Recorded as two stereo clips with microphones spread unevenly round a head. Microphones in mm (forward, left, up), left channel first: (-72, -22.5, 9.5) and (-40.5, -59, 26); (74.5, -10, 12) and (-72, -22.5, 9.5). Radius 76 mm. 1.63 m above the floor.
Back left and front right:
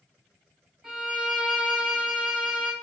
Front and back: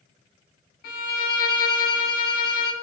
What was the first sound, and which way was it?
A violin, 25° left.